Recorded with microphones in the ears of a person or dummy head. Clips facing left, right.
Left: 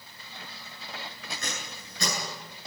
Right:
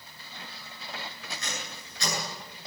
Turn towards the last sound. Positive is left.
turn(degrees=45)  # may be behind; listen again after turning